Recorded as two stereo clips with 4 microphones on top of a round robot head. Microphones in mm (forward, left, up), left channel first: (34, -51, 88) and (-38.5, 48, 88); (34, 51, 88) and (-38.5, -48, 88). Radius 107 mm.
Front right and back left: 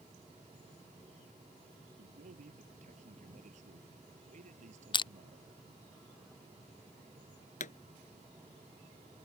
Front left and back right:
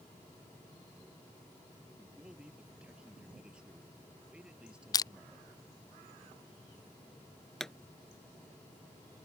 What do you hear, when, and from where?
2.0 s a man speaking: 150° left
4.9 s crushing: 5° right
7.6 s a pop: 30° right